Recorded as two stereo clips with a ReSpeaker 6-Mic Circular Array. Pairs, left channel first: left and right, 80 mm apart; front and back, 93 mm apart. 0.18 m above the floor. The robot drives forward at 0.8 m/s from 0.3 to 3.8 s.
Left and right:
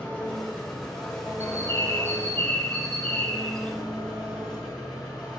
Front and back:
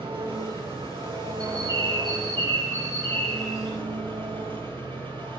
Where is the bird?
140° left, 1.8 m; by 3.7 s 160° left, 3.5 m.